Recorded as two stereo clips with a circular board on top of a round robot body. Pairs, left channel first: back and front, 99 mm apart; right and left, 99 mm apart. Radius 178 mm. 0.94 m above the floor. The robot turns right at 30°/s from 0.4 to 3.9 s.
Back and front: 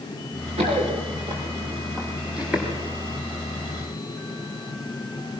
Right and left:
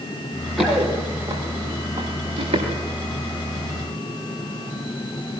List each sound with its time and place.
0.6 s running footsteps: straight ahead, 6.5 m; by 2.7 s 90° left, 6.5 m